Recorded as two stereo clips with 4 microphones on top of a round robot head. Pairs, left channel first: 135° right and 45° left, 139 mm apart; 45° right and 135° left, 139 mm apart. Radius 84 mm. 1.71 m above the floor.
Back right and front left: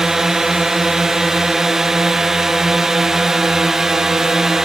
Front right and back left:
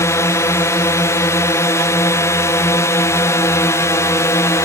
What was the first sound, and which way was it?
A drone, 35° right.